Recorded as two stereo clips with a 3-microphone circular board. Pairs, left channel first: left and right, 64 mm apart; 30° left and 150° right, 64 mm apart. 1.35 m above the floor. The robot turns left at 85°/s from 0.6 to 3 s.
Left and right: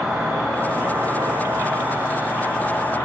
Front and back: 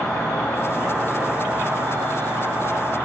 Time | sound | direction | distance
0.0 | an insect | 15° right | 1.6 m